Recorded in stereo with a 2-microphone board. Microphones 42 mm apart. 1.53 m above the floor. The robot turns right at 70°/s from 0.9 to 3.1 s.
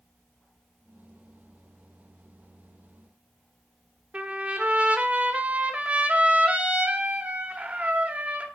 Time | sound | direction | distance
4.1 | a trumpet | 35° right (ahead or behind) | 1.4 m